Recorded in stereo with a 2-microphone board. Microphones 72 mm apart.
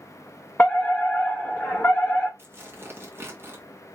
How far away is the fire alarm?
About 1.5 m.